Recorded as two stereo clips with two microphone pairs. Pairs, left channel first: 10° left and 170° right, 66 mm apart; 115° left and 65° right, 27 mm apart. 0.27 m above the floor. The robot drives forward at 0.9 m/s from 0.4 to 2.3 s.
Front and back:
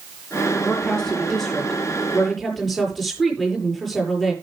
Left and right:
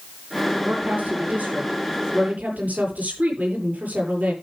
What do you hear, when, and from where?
0.6 s a woman speaking: 70° right, 8 m; by 4.3 s 85° right, 7.5 m